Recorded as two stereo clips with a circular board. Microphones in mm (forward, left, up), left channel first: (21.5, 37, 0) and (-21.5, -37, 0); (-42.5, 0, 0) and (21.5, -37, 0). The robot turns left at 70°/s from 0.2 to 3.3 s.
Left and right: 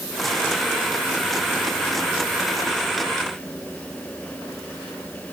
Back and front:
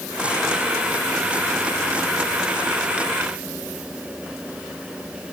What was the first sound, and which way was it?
Only background noise.